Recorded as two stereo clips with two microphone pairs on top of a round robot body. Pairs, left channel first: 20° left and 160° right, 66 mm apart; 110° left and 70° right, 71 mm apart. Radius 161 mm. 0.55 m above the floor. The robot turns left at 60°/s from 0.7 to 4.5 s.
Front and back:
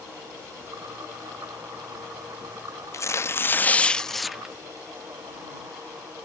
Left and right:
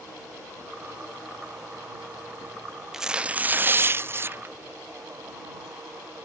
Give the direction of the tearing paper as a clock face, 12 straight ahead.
12 o'clock.